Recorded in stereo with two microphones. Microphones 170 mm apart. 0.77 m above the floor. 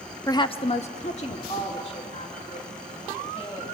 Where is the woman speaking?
20° left (ahead or behind), 0.8 m; by 3.8 s 35° left (ahead or behind), 5.5 m.